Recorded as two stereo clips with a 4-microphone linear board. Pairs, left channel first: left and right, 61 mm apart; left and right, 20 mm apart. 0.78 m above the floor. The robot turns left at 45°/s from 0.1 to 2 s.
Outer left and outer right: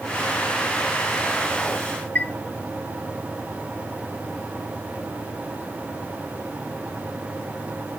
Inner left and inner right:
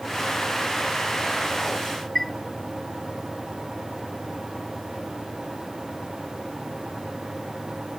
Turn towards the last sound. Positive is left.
turn(degrees=25)  # may be behind; listen again after turning